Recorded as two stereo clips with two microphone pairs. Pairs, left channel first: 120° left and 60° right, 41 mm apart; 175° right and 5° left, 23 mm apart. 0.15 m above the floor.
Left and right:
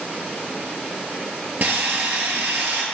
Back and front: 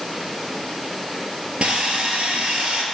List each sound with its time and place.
1.6 s sawing: 25° right, 1.1 m